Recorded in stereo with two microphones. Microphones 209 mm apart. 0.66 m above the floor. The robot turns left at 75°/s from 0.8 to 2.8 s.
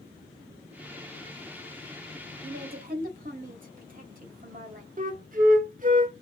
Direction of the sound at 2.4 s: 55° right (ahead or behind).